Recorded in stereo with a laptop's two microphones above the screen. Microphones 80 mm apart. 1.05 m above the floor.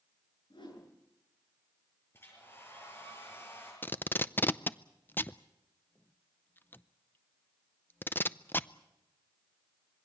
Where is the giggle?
No giggle in this recording.